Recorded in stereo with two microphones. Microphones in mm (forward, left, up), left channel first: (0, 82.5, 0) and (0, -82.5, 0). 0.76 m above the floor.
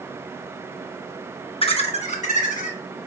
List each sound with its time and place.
1.6 s laughter: 35° left (ahead or behind), 0.8 m; by 2.8 s 50° left (ahead or behind), 1.6 m